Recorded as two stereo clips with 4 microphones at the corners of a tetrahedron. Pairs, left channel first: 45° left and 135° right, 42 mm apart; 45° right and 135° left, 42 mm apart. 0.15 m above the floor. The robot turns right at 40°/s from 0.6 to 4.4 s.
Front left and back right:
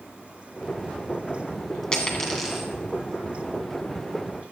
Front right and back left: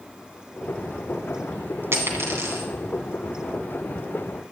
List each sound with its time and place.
1.9 s a dropped coin: 110° left, 2 m; by 2.7 s 140° left, 2 m